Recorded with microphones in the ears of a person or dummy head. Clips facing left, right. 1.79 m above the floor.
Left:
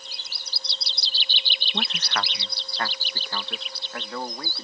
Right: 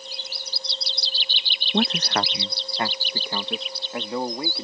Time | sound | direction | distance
1.7 | a man speaking | 40° right (ahead or behind) | ?